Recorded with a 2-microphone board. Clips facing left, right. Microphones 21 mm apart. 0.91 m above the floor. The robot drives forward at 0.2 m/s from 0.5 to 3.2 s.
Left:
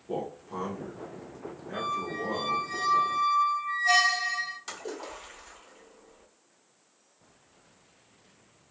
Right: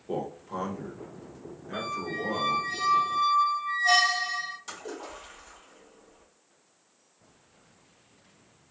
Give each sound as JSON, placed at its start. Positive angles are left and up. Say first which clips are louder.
{"t": 0.1, "sound": "a man speaking", "louder": "right 1 dB", "side_deg": -20, "distance_m": 0.8}
{"t": 1.7, "sound": "a squeak", "louder": "left 1 dB", "side_deg": -40, "distance_m": 0.8}
{"t": 4.7, "sound": "a splash", "louder": "left 1 dB", "side_deg": 25, "distance_m": 1.1}